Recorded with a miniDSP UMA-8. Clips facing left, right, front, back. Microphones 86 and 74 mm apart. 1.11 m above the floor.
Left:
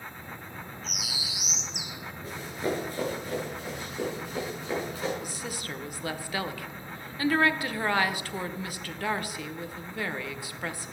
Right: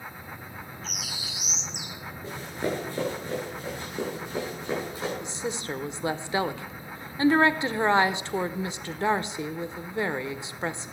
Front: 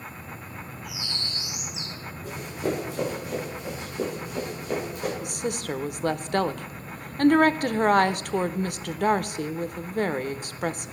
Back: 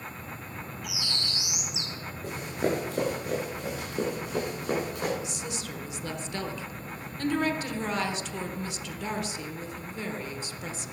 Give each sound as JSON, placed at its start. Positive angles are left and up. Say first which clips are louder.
{"t": 0.8, "sound": "a bird", "louder": "even, back 1 dB", "azimuth_deg": 175, "distance_m": 1.4}
{"t": 2.2, "sound": "running footsteps", "louder": "right 1 dB, even", "azimuth_deg": -155, "distance_m": 7.5}
{"t": 5.2, "sound": "a woman speaking", "louder": "right 4 dB, front 6 dB", "azimuth_deg": -25, "distance_m": 0.6}